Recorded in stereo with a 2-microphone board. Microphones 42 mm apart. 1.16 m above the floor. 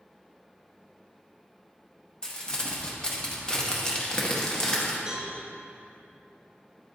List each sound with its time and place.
2.2 s crumpling: 15° left (ahead or behind), 0.8 m
5.1 s a cowbell: 20° right (ahead or behind), 2.5 m